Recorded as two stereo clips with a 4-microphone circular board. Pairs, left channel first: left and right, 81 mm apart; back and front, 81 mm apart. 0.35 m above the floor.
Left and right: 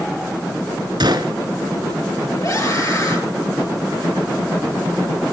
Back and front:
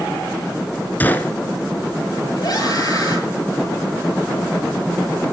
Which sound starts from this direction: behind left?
A scream, at 2.4 s.